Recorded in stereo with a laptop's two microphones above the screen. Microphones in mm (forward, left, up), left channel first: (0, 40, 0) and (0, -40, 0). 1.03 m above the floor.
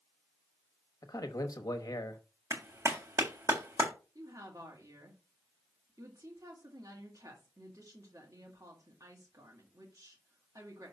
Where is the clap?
40° right (ahead or behind), 1.9 m.